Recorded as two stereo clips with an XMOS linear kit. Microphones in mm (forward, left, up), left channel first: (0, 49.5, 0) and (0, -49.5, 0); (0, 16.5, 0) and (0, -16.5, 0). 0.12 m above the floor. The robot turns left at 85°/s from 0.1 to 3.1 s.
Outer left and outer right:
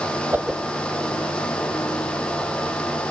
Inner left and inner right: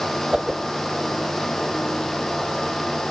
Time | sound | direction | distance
0.3 | a whoosh | 20° right (ahead or behind) | 1.0 m